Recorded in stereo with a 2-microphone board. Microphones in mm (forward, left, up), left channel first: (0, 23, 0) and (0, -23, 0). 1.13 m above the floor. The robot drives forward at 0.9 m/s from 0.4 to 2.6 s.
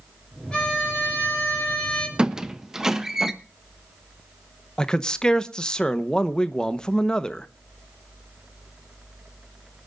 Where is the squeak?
15° right (ahead or behind), 0.5 m; by 3.3 s 10° right (ahead or behind), 0.9 m.